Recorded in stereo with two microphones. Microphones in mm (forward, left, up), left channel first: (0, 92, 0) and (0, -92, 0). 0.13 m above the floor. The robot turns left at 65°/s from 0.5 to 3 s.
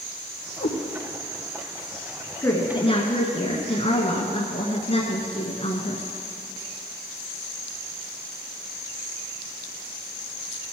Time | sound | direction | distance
0.6 | a cat meowing | 65° left (ahead or behind) | 2.5 m
2.4 | a woman speaking | 160° left | 1.5 m